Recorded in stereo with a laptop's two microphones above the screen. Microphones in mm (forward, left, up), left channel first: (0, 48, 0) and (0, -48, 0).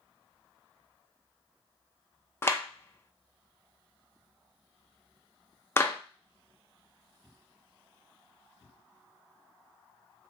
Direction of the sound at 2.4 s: 25° left (ahead or behind).